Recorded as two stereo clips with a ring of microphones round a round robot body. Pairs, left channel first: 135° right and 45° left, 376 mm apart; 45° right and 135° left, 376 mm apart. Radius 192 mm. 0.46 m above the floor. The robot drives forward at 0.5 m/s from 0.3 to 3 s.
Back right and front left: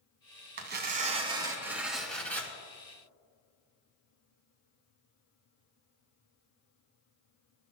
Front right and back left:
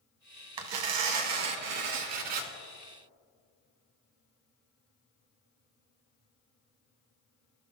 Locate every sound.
0.6 s tearing paper: 105° left, 1.1 m; by 2.5 s 140° left, 1.7 m